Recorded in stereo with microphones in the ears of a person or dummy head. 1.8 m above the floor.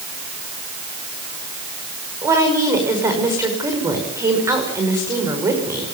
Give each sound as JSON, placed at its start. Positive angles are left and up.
{"t": 2.2, "sound": "a woman speaking", "side_deg": -25, "distance_m": 5.5}